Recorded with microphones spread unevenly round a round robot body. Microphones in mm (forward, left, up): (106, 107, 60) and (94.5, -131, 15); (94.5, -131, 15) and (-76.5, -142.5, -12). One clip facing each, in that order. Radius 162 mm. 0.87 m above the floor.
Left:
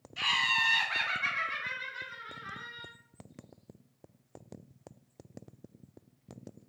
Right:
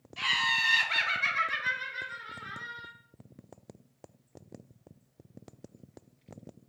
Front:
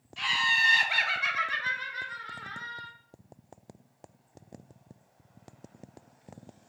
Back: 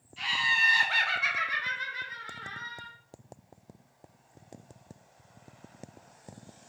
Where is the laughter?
5° right, 0.6 m; by 2.9 s 120° right, 1.6 m.